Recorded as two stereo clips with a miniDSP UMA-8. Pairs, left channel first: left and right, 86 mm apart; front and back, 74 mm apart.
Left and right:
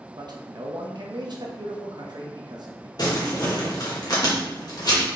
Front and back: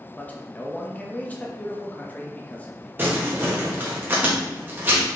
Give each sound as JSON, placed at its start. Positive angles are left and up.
{"t": 0.2, "sound": "a man speaking", "azimuth_deg": -65, "distance_m": 0.8}
{"t": 3.0, "sound": "crumpling", "azimuth_deg": 120, "distance_m": 1.3}